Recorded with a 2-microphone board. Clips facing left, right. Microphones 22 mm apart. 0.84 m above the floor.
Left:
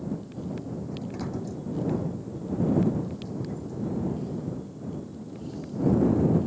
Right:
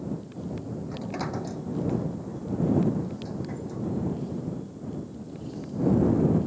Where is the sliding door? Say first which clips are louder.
Right 2 dB; 35° right (ahead or behind).